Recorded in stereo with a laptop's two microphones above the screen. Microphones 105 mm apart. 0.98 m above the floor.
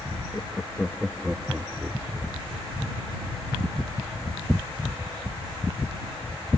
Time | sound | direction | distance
0.3 | laughter | 25° left (ahead or behind) | ?